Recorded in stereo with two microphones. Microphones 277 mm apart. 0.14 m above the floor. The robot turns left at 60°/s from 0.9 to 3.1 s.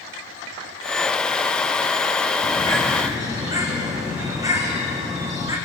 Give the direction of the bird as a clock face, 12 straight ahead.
11 o'clock.